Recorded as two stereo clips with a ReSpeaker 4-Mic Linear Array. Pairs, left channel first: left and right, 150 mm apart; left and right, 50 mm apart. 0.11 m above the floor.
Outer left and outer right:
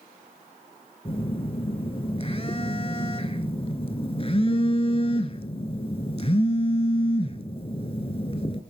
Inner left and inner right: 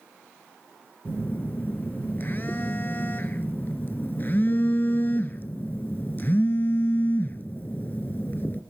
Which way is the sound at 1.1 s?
40° left (ahead or behind).